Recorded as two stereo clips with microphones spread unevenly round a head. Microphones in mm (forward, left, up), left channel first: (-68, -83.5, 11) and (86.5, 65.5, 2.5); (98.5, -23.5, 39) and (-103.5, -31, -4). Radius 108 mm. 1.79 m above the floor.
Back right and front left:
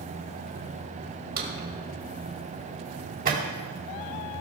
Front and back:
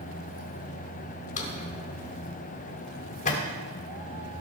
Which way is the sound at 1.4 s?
15° left.